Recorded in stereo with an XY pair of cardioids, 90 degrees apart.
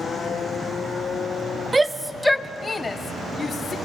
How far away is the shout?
About 0.7 m.